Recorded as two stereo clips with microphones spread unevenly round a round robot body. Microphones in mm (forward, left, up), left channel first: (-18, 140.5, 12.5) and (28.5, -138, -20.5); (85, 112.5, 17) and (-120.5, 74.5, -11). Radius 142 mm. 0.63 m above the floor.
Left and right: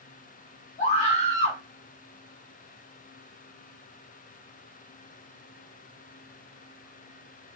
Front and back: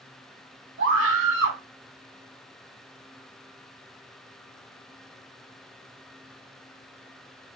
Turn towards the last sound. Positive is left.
turn(degrees=165)